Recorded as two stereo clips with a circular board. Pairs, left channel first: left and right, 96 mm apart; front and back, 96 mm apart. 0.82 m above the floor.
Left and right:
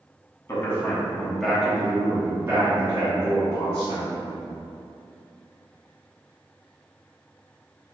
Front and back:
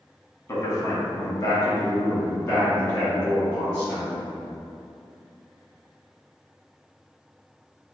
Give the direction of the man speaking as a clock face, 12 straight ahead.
11 o'clock.